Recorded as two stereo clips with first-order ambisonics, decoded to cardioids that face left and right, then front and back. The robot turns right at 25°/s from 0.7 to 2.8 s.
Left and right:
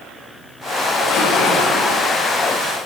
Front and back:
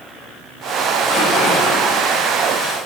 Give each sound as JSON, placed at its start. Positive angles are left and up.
{"t": 1.0, "sound": "a splash", "azimuth_deg": 75, "distance_m": 3.0}